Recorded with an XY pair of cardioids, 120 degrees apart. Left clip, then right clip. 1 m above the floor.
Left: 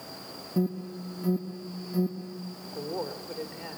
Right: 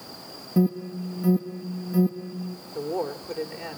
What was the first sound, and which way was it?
An alarm, 25° right.